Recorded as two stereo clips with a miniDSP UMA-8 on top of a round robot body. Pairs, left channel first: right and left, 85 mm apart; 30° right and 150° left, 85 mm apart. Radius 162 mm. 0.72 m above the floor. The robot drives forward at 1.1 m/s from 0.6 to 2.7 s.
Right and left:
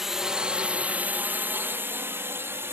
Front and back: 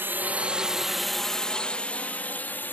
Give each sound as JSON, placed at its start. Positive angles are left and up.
{"t": 0.0, "sound": "a drone", "azimuth_deg": 170}